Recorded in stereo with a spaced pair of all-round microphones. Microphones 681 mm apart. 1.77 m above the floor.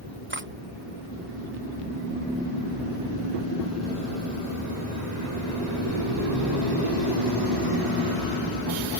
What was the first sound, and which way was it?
Cutlery clinking, 15° right (ahead or behind).